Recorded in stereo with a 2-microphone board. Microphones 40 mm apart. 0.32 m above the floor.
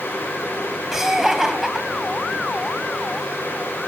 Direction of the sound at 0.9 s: 15° right (ahead or behind).